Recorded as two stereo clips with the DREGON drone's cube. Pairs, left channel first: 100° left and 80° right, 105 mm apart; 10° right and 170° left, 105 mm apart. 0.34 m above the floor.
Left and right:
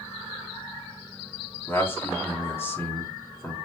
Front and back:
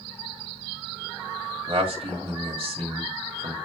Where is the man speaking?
160° left, 1.9 m.